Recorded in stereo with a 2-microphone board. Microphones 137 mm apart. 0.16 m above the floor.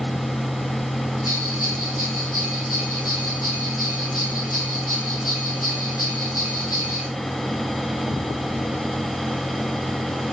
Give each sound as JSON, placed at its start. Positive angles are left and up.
{"t": 1.2, "sound": "a bell", "side_deg": 85, "distance_m": 3.0}